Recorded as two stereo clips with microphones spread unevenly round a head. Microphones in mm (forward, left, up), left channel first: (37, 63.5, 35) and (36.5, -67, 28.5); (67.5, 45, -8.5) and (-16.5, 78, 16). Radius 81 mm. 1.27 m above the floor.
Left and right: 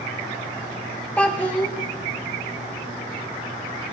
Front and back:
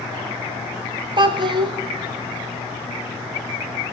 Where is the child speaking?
170° left, 0.6 m.